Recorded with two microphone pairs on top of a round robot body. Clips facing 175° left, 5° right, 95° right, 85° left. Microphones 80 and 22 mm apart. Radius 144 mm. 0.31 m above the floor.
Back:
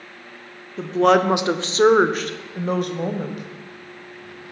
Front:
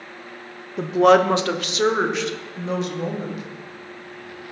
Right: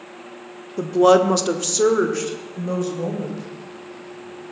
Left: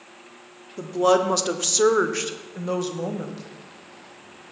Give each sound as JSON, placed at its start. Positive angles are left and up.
{"t": 0.8, "sound": "a woman speaking", "azimuth_deg": -75, "distance_m": 1.1}